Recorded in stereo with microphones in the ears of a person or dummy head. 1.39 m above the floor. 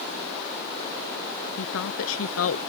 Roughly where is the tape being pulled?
I don't hear tape being pulled.